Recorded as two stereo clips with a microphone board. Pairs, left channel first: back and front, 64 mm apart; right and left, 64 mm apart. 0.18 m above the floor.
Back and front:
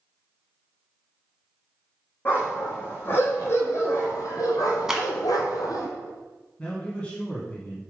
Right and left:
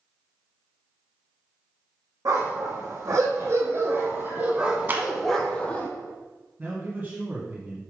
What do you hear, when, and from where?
2.2 s a dog barking: 120° left, 3 m; by 5.9 s 155° right, 1.6 m
4.9 s a clap: 75° left, 1.1 m
6.6 s a man speaking: 125° left, 1.6 m